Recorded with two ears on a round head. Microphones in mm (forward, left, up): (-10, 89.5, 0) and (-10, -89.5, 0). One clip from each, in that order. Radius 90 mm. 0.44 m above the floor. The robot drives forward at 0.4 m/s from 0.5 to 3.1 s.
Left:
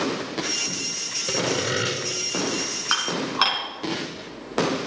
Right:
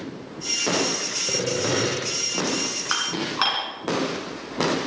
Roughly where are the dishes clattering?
Centre.